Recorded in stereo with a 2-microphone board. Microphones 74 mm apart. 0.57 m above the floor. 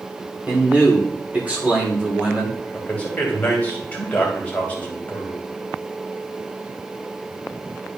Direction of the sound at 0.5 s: 20° right (ahead or behind).